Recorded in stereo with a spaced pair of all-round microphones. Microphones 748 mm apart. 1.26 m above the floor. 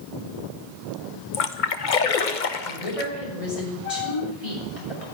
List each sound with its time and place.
1.3 s a splash: 80° left, 1.1 m
2.6 s a woman speaking: 45° left (ahead or behind), 6.5 m